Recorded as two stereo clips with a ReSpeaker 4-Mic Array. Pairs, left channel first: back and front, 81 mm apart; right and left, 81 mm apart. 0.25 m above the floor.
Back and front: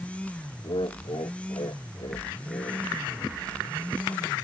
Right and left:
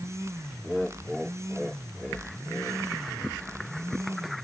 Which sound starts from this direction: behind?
Laughter, at 0.6 s.